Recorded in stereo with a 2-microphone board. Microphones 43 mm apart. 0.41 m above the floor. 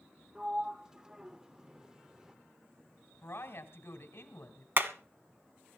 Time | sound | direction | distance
0.3 | a sliding door | 15° right (ahead or behind) | 0.9 m
3.2 | a woman speaking | 70° left (ahead or behind) | 2.5 m
4.8 | hammering | 60° right (ahead or behind) | 1.2 m